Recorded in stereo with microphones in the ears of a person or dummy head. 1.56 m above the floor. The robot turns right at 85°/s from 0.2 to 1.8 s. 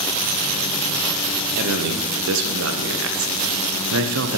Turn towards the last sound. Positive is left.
turn(degrees=-70)  # may be behind; listen again after turning